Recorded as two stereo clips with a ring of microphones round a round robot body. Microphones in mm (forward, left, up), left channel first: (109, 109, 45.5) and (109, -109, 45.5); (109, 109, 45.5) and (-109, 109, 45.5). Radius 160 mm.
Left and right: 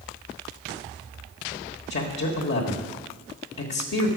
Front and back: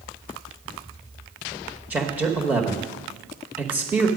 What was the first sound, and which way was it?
A man speaking, 100° left.